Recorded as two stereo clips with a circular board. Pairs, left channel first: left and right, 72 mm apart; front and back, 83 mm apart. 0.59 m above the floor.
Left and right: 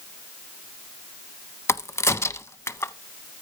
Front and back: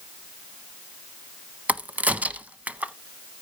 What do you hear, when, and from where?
1.7 s a crack: 115° left, 0.6 m